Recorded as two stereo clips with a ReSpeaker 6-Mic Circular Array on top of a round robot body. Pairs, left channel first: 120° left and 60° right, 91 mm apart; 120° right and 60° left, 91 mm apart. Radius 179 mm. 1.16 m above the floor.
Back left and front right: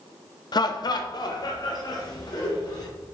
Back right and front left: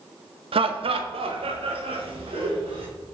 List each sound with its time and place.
0.5 s laughter: 75° left, 0.6 m